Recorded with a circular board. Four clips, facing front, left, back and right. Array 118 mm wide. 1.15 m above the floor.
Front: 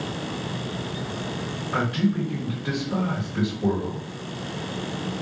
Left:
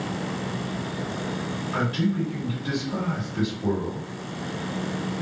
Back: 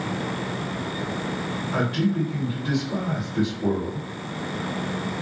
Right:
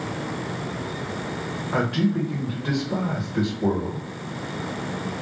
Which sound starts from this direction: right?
A man speaking, at 1.7 s.